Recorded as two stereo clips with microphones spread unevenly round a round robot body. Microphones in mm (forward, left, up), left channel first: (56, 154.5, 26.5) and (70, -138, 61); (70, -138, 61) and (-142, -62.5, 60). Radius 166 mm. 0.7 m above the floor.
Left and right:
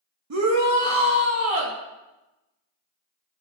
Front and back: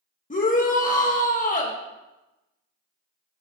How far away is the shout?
About 1.3 m.